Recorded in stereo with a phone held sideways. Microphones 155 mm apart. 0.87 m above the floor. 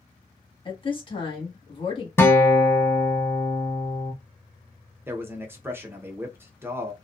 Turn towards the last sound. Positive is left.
turn(degrees=-15)  # may be behind; listen again after turning